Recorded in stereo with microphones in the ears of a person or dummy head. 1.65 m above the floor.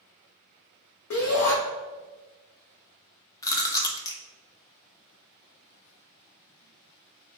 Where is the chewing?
20° left (ahead or behind), 0.7 m.